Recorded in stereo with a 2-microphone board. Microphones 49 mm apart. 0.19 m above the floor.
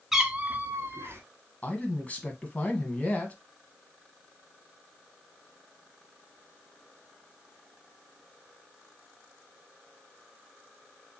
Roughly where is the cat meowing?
Centre.